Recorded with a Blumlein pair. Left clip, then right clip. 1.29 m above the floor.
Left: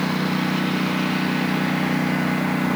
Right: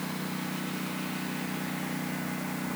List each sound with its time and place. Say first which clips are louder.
0.0 s a lawn mower: left 12 dB; 60° left